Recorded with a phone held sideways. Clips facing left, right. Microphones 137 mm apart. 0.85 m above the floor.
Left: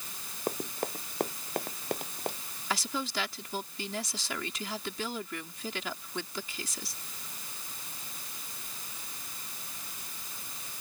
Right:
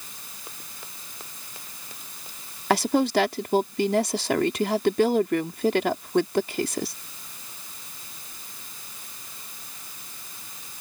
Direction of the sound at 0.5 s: 55° left (ahead or behind).